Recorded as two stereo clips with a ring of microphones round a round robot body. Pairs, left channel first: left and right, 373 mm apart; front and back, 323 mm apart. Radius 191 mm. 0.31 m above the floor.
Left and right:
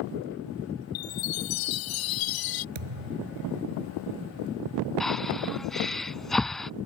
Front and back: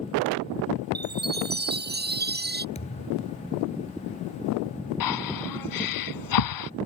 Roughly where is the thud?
Right.